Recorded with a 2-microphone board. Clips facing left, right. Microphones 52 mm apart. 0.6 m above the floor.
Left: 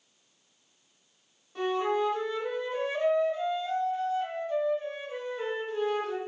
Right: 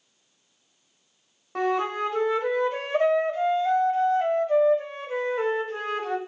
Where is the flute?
65° right (ahead or behind), 0.9 m.